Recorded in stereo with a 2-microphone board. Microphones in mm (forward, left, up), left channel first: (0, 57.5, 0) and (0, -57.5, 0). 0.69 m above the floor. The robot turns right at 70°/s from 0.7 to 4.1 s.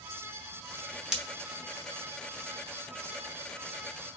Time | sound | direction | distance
1.1 | breaking glass | 5° right (ahead or behind) | 0.8 m